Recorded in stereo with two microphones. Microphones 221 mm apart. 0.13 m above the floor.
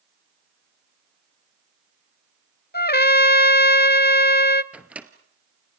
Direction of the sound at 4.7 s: 5° right (ahead or behind).